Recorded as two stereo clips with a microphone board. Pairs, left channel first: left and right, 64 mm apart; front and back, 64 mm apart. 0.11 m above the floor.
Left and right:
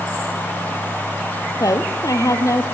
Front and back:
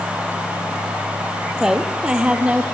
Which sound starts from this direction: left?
A woman speaking, at 1.6 s.